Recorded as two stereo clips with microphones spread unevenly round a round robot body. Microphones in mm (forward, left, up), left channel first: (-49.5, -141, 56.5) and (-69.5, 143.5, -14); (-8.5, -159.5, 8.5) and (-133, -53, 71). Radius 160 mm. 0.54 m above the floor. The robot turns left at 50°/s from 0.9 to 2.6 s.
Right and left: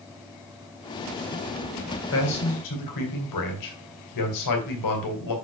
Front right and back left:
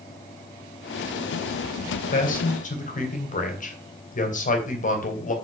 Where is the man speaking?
30° right, 3 m; by 5.3 s 55° right, 3 m.